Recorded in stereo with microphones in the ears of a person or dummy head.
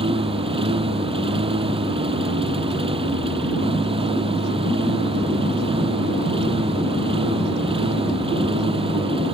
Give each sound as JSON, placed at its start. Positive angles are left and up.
{"t": 0.0, "sound": "a lawn mower", "side_deg": -30}